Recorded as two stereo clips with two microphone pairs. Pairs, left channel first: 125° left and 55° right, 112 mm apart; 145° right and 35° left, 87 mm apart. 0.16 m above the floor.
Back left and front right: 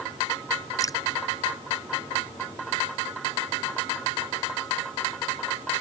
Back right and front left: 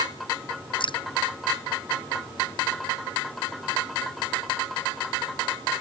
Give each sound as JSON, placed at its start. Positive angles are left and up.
{"t": 0.8, "sound": "dripping", "azimuth_deg": -170}